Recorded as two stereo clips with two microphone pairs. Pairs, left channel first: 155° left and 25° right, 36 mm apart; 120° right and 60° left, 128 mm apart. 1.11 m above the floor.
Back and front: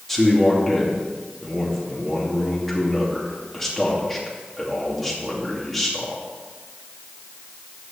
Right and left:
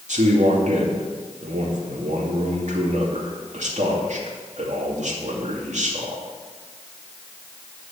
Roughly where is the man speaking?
Left.